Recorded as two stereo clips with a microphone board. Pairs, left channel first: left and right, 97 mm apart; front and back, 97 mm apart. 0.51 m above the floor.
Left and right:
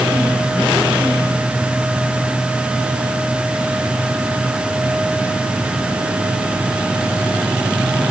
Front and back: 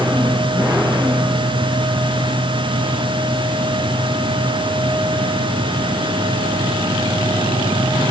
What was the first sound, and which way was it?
Only background noise.